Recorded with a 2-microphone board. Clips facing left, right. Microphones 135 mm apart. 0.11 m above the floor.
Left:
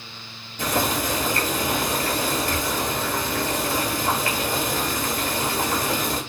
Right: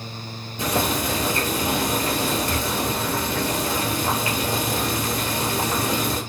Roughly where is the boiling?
Centre.